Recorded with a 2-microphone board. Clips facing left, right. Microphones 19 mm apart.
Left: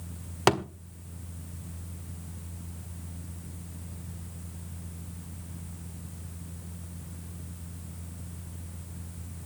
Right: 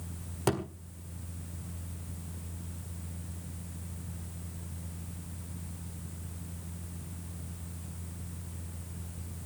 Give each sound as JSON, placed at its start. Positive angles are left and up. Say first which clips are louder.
{"t": 0.5, "sound": "a thud", "louder": "left 7 dB", "side_deg": 40, "distance_m": 1.5}